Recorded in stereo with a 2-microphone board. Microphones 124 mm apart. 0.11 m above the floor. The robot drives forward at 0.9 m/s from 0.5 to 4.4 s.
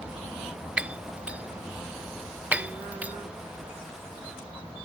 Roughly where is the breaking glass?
Centre.